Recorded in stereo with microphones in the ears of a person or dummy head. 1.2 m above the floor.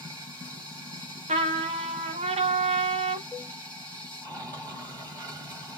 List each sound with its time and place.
0.0 s running water: 15° right (ahead or behind), 2.5 m
1.3 s a trumpet: 25° right (ahead or behind), 0.8 m
3.3 s a cowbell: 10° right (ahead or behind), 1.0 m